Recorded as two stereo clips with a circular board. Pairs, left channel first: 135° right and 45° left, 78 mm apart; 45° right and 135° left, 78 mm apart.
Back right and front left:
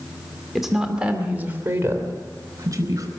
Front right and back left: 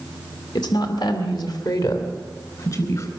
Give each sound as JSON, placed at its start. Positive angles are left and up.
{"t": 0.6, "sound": "a woman speaking", "azimuth_deg": -45, "distance_m": 2.0}